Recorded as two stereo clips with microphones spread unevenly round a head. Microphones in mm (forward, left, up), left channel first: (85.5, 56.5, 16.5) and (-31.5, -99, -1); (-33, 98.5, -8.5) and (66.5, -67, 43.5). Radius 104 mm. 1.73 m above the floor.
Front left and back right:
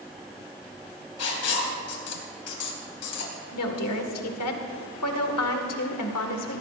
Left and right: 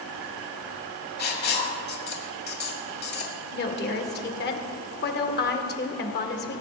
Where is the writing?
80° left, 2.5 m.